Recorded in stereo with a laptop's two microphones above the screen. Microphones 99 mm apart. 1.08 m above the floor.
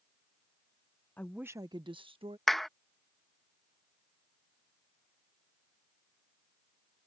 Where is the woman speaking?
20° left (ahead or behind); by 2.4 s 70° right (ahead or behind).